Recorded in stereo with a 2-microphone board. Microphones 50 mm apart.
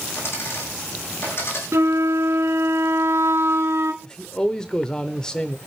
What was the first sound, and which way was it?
A dropped coin, 60° left (ahead or behind).